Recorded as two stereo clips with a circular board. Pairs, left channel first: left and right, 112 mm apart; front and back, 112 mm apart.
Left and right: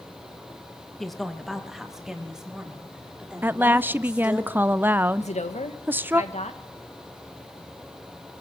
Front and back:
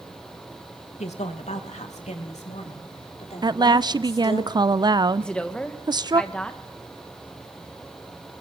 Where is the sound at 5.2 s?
80° left, 1.8 m.